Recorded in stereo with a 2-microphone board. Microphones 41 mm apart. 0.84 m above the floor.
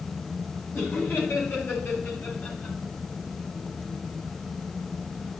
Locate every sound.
0.7 s laughter: 70° left (ahead or behind), 4.5 m; by 2.8 s 55° left (ahead or behind), 4.5 m